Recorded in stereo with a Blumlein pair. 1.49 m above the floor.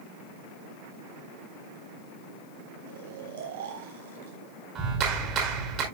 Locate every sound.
2.9 s snoring: 55° right, 3.5 m
4.8 s a clap: 30° right, 5 m